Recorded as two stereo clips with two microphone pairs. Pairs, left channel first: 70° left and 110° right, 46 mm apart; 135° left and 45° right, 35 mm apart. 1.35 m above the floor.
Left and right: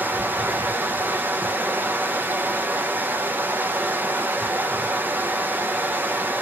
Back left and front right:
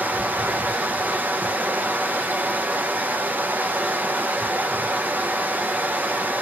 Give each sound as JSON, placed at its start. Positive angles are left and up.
{"t": 0.0, "sound": "running water", "azimuth_deg": -70, "distance_m": 0.7}